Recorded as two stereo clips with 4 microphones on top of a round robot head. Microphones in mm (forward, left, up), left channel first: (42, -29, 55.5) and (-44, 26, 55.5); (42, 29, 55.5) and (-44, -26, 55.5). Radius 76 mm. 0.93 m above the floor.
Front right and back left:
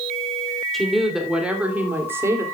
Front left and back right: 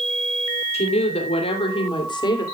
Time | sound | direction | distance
0.7 | a woman speaking | 55° left | 3 m